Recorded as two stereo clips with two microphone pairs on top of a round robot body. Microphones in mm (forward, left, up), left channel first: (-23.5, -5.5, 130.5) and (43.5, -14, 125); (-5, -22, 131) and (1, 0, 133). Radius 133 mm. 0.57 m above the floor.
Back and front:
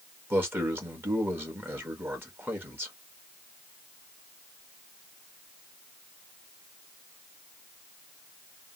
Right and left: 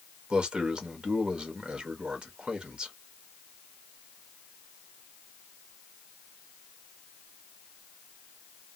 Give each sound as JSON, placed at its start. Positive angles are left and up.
{"t": 0.3, "sound": "a man speaking", "azimuth_deg": 30, "distance_m": 1.7}